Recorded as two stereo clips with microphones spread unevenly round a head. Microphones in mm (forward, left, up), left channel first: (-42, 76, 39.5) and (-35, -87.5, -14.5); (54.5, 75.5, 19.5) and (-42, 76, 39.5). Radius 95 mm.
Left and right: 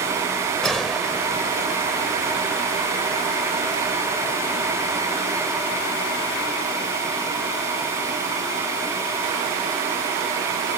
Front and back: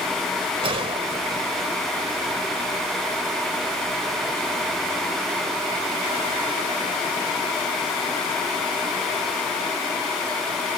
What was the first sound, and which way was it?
A gunshot, 170° left.